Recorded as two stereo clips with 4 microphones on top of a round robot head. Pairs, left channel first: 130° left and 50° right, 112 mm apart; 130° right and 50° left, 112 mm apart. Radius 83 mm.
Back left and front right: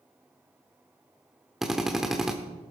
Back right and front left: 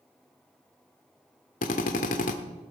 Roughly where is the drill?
Behind right.